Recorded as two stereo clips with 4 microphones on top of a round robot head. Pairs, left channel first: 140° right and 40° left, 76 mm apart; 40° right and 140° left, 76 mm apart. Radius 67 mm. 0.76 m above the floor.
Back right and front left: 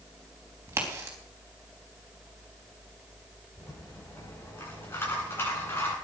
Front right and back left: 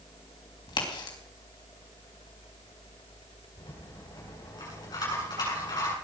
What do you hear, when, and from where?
0.7 s a crack: 20° right, 4.5 m
3.6 s a rattle: 75° right, 8.5 m